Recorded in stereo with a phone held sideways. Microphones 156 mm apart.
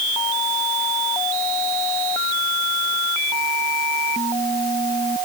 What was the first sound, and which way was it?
Only background noise.